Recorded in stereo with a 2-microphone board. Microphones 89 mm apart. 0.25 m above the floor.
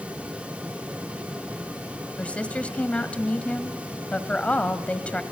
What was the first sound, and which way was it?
A woman speaking, 15° left (ahead or behind).